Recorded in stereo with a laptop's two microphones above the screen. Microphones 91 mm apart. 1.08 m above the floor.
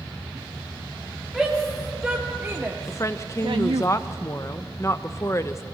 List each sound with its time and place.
1.3 s a shout: centre (ahead or behind), 2 m; by 3.9 s 70° right (ahead or behind), 0.8 m
2.9 s a woman speaking: 30° left (ahead or behind), 1.0 m